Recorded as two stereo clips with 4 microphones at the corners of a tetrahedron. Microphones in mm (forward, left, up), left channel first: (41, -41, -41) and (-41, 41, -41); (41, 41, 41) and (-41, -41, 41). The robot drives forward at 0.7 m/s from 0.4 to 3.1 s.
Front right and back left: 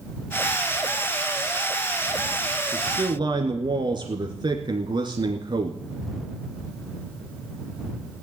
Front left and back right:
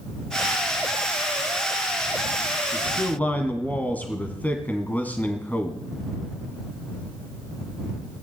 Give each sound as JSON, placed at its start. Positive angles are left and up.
{"t": 2.7, "sound": "a man speaking", "azimuth_deg": 105, "distance_m": 1.6}